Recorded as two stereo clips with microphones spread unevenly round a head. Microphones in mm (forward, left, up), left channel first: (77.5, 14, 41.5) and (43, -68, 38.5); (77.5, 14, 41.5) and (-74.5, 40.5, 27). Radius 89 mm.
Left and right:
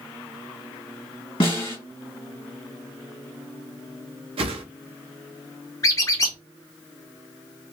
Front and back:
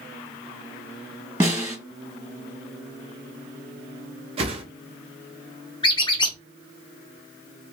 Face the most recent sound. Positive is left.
turn(degrees=35)